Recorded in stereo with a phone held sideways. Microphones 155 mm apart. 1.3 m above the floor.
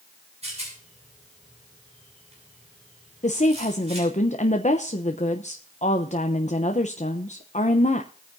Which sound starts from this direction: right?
A rattle, at 0.4 s.